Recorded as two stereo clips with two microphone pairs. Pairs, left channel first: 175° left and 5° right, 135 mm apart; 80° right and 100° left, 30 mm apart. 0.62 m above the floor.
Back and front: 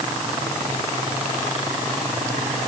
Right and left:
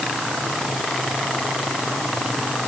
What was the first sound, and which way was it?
Only background noise.